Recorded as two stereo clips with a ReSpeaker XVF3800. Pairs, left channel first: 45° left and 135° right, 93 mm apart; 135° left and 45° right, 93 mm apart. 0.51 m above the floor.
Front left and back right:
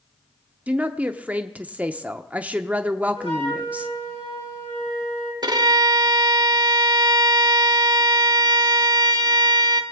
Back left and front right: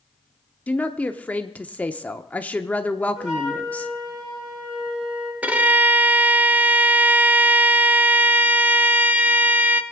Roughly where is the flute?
Ahead left.